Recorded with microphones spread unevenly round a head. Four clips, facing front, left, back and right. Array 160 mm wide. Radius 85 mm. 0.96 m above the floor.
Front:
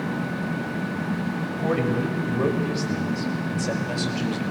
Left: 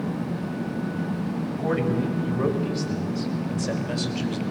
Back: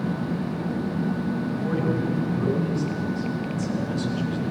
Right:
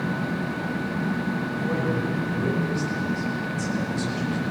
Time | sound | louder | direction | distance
1.5 | a man speaking | left 4 dB, front 4 dB | 20° left | 5 m